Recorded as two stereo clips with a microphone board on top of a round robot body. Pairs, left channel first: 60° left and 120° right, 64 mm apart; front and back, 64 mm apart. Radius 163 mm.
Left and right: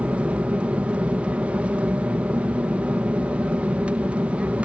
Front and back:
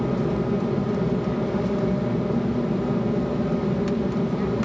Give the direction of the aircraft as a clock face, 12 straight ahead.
3 o'clock.